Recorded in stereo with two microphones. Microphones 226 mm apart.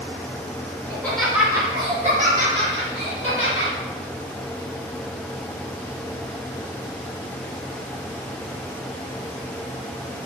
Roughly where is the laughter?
Centre.